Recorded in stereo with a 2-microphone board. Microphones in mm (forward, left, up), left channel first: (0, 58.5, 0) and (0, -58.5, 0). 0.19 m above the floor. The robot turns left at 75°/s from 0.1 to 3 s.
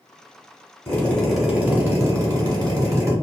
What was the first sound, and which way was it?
A drill, 35° left.